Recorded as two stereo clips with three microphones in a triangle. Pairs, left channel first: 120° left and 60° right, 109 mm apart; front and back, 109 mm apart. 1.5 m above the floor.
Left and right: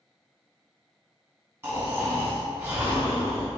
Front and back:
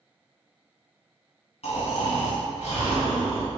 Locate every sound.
1.6 s snoring: 5° left, 1.7 m